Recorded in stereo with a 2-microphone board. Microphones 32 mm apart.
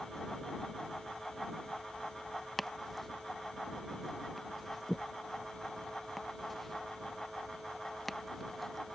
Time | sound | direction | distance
2.6 | chopping | 5° left (ahead or behind) | ?